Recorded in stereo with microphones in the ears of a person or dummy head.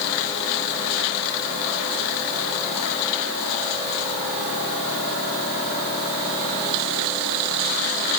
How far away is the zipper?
No zipper in this recording.